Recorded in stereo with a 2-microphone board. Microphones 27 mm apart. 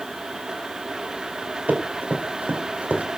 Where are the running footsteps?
80° right, 6 m; by 3.1 s 85° right, 4.5 m.